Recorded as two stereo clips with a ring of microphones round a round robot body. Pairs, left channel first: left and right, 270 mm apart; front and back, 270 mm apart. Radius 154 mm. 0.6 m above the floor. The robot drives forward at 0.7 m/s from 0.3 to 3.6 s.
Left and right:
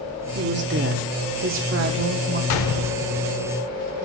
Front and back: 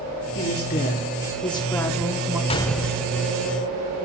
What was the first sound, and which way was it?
A woman speaking, 45° right.